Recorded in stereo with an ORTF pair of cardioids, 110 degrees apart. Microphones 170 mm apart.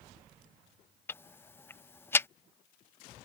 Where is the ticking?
15° left.